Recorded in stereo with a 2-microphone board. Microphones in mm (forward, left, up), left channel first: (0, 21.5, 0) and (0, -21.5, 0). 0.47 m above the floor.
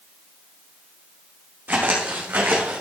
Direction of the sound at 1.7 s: 50° right (ahead or behind).